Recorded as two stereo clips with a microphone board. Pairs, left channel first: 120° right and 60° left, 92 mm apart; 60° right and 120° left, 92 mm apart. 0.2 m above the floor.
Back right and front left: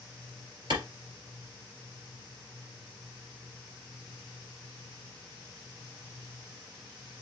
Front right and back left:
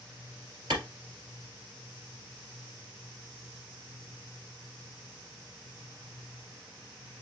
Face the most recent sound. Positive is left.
turn(degrees=85)